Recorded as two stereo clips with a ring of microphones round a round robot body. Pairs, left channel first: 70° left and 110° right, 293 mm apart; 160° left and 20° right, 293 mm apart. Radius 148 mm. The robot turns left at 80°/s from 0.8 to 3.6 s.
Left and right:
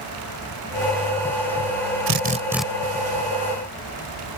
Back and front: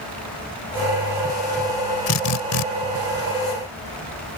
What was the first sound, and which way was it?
A drill, 160° right.